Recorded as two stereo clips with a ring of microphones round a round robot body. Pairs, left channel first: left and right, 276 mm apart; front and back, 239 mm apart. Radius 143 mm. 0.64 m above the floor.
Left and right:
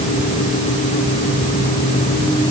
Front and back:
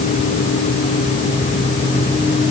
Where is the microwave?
I don't hear a microwave.